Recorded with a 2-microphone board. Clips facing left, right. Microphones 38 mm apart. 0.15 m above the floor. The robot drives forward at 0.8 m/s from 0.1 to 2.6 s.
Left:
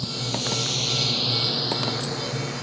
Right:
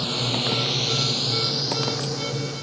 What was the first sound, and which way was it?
A drone, 55° right (ahead or behind).